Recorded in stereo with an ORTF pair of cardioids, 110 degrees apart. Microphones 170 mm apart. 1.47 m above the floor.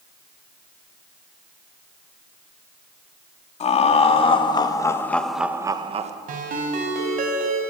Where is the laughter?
40° left, 3 m; by 6.1 s 45° right, 1.3 m.